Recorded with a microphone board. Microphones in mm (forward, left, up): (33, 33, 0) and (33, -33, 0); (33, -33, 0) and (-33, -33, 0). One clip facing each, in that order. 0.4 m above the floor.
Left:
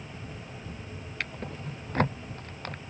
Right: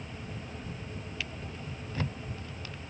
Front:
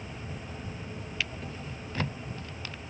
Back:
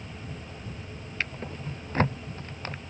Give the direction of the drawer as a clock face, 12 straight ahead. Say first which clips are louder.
Left 4 dB, back 4 dB; 8 o'clock.